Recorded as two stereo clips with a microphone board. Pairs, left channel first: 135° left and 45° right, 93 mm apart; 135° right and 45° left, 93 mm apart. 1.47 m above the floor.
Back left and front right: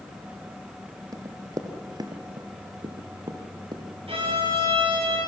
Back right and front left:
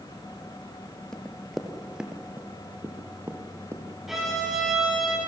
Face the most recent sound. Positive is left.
turn(degrees=-40)